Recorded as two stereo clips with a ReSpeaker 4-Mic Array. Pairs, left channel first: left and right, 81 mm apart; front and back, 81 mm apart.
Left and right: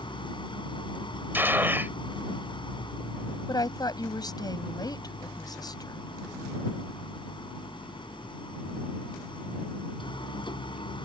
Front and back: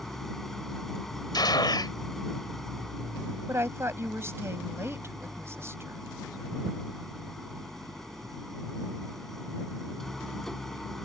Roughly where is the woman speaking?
Behind left.